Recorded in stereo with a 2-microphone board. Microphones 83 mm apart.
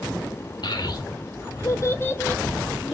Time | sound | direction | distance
0.6 | a child speaking | 60° left (ahead or behind) | 1.3 m